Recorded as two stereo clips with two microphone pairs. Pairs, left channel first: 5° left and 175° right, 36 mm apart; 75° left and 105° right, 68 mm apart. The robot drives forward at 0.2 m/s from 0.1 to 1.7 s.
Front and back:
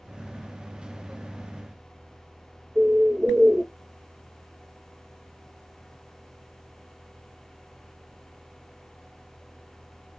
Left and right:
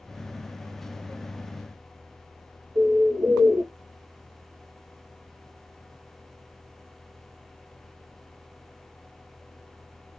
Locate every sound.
2.8 s a bird: 85° right, 1.3 m